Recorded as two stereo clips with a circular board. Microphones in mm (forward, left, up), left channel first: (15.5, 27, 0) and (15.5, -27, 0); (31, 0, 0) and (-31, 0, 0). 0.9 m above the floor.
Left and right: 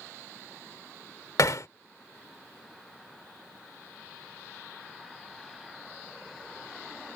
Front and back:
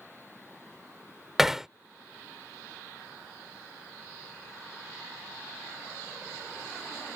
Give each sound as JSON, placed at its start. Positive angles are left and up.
{"t": 1.4, "sound": "hammering", "azimuth_deg": 95}